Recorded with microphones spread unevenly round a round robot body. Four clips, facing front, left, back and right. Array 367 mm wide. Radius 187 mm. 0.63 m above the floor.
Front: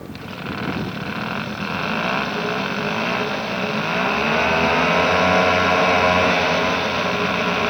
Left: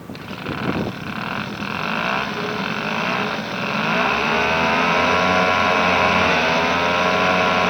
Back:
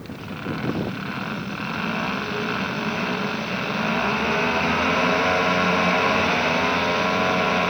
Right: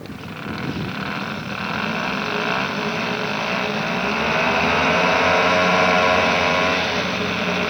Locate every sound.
Only background noise.